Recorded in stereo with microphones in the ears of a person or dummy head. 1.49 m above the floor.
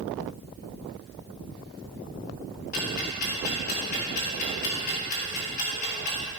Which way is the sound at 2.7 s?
45° left (ahead or behind).